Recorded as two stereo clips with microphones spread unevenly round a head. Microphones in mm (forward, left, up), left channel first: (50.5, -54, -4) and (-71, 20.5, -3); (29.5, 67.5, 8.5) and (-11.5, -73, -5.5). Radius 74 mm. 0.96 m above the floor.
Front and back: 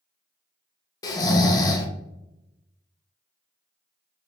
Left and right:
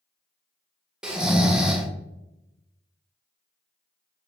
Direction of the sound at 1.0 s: 15° right.